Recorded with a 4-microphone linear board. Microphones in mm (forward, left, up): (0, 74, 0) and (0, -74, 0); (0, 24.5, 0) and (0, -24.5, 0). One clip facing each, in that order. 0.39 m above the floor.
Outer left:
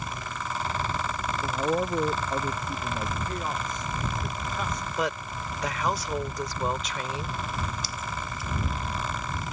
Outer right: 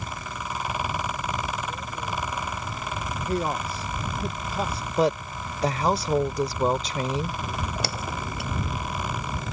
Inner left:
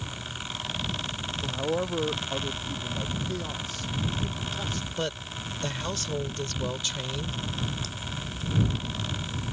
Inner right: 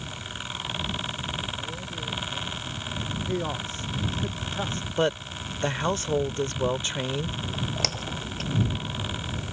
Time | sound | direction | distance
1.4 | a man speaking | 60° left (ahead or behind) | ?
3.2 | a man speaking | 30° right (ahead or behind) | ?
5.0 | a woman speaking | 30° right (ahead or behind) | ?
7.4 | a splash | 75° right (ahead or behind) | ?